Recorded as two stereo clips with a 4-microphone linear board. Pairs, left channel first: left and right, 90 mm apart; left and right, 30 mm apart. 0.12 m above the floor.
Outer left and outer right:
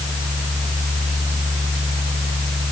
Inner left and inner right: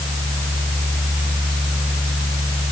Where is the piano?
No piano in this recording.